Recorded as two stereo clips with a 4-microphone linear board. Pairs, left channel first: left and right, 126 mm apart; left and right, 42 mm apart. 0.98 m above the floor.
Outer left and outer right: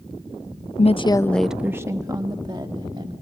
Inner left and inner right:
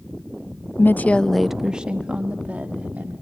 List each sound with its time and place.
0.8 s a woman speaking: 60° left (ahead or behind), 0.6 m; by 3.1 s 45° right (ahead or behind), 2 m